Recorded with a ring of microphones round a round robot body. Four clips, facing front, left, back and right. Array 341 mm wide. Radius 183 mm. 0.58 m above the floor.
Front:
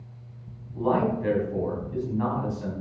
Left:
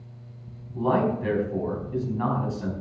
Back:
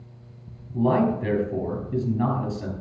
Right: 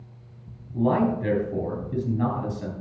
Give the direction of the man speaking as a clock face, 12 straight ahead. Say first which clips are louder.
Right 1 dB, back 3 dB; 5 o'clock.